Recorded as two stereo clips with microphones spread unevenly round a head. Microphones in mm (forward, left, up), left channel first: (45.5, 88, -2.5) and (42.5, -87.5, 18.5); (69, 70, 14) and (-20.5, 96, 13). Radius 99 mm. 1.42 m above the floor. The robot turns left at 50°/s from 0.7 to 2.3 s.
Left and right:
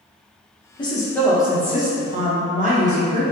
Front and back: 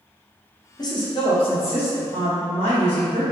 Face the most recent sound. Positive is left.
turn(degrees=-45)